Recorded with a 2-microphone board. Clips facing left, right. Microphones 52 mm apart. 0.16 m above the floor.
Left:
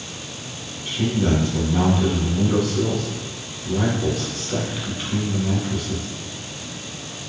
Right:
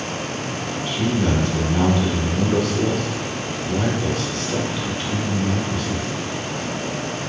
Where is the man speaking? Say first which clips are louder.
Even; 5° left (ahead or behind), 1.0 m.